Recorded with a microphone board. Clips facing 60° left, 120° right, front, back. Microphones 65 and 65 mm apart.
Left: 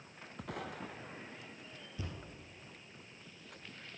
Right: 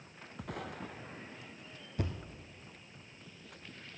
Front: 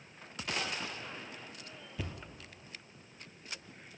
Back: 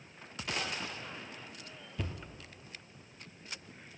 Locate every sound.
2.0 s a thud: 90° right, 1.6 m